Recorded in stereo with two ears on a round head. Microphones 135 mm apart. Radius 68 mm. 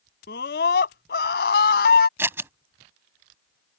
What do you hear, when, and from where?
0.3 s a scream: 75° left (ahead or behind)
2.2 s scissors: 15° right (ahead or behind)